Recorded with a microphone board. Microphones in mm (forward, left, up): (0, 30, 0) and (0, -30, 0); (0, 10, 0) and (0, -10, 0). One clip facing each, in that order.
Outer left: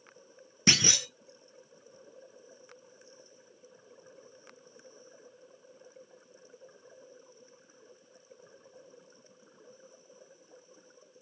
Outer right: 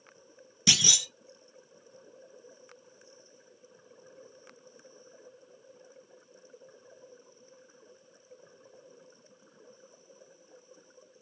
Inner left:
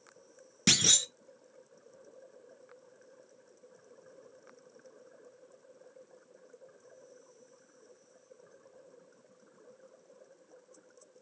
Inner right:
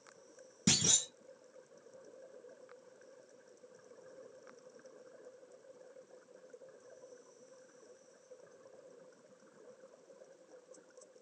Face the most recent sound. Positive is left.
turn(degrees=40)  # may be behind; listen again after turning